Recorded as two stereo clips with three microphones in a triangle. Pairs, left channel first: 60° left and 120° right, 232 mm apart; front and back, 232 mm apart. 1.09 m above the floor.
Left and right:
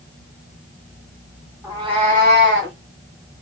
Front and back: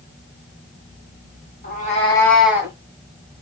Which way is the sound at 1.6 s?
45° right.